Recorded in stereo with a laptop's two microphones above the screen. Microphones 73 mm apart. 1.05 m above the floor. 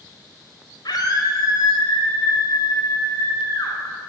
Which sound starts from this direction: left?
A scream, at 0.8 s.